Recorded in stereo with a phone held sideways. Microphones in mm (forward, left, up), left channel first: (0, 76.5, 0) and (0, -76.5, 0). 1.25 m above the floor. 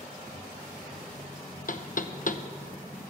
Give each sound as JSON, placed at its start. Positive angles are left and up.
{"t": 1.7, "sound": "knocking", "side_deg": 60, "distance_m": 0.9}